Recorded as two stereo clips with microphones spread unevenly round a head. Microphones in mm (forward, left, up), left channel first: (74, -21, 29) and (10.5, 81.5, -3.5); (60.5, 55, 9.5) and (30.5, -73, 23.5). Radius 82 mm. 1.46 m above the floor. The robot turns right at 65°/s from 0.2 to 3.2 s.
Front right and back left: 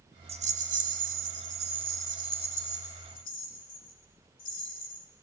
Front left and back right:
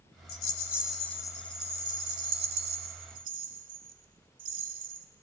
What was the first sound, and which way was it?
A rattle, 85° left.